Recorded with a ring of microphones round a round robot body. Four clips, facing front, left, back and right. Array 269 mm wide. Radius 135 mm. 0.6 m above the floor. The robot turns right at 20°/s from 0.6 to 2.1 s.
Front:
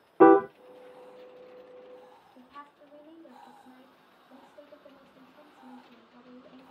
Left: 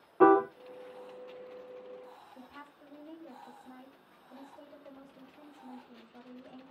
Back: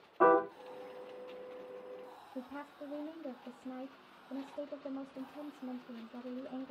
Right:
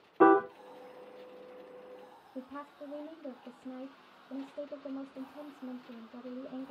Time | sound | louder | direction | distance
0.2 | a piano | left 1 dB, front 9 dB | 5° right | 0.7 m
2.4 | a woman speaking | right 7 dB, back 6 dB | 120° right | 2.5 m